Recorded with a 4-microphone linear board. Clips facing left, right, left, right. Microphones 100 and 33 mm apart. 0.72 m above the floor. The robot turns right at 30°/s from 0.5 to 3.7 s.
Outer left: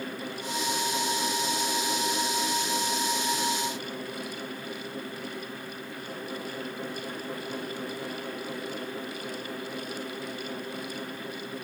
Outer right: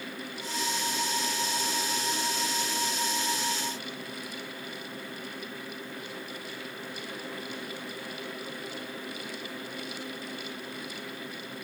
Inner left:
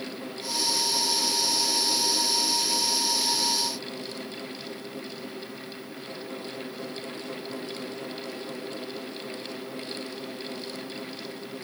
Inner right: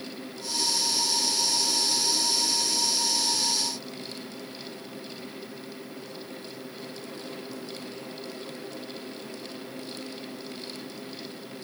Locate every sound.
Only background noise.